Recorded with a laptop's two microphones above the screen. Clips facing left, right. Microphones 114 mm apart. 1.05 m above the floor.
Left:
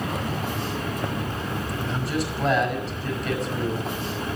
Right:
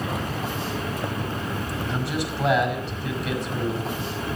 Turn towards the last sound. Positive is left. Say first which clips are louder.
# left 1 dB
turn(degrees=0)  # may be behind; listen again after turning